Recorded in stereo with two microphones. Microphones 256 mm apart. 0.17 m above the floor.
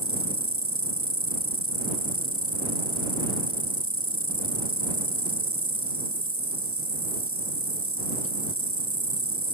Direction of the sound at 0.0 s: 55° right (ahead or behind).